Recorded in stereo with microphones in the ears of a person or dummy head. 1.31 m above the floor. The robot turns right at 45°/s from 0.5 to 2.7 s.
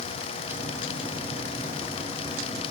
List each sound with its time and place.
Only background noise.